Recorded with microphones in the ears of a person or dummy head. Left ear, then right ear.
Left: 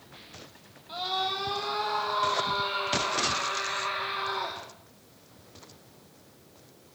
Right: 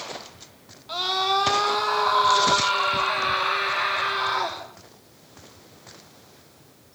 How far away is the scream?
About 2.5 m.